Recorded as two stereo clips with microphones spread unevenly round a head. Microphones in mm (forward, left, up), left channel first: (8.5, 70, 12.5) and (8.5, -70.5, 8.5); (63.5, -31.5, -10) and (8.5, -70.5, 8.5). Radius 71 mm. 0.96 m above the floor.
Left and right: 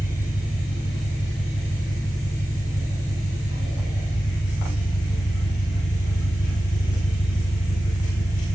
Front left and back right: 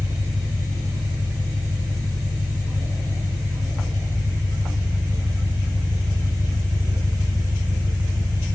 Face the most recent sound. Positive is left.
turn(degrees=175)